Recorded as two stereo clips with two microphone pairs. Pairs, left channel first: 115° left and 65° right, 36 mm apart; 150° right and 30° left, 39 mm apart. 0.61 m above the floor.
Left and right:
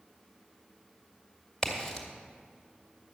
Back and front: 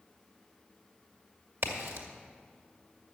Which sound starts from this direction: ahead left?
A crack, at 1.6 s.